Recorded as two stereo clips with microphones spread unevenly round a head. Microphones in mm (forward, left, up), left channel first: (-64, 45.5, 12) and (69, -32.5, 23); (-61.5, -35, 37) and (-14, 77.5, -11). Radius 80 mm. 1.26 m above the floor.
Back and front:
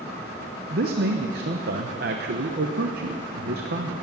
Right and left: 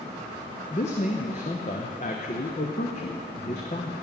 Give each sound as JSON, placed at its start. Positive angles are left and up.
{"t": 0.7, "sound": "a man speaking", "azimuth_deg": -60, "distance_m": 0.9}